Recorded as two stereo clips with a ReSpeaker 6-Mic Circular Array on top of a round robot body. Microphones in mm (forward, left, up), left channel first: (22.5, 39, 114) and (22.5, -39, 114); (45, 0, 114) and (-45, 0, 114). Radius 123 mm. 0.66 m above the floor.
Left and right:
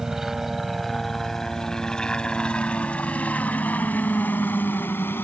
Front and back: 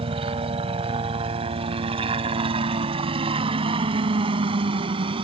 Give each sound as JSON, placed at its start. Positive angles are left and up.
{"t": 0.0, "sound": "a helicopter", "azimuth_deg": -175}